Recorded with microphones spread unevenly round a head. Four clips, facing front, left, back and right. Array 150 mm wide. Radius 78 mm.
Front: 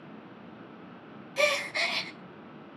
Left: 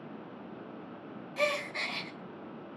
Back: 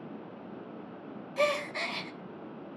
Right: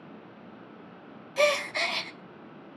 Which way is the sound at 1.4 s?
75° right.